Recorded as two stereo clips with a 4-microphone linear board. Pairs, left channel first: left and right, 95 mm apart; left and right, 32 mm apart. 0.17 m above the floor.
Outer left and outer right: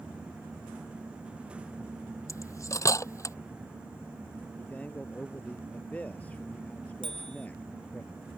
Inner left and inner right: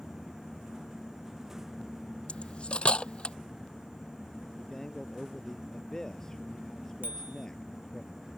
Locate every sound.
2.3 s cutlery clinking: 35° left (ahead or behind)
4.6 s a man speaking: 15° left (ahead or behind)
7.0 s a bicycle bell: 65° right (ahead or behind)